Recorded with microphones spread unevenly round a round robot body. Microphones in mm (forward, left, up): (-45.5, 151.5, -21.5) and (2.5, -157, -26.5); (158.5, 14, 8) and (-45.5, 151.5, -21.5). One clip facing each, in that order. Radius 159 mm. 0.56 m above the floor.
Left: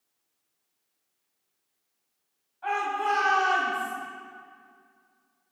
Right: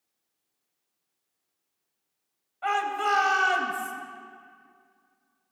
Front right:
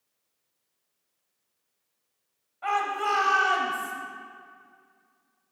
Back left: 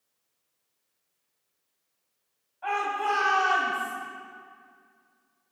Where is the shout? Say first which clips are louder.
Right 1 dB, even; 90° right, 3 m.